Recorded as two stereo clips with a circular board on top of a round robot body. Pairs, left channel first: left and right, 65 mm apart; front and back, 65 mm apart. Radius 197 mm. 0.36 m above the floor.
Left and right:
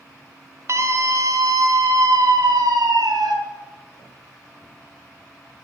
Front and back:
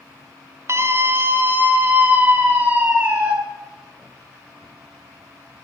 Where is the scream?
135° right, 2.5 m; by 3.3 s 110° right, 5 m.